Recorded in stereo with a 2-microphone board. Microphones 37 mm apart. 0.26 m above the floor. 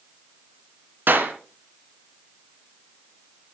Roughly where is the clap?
Right.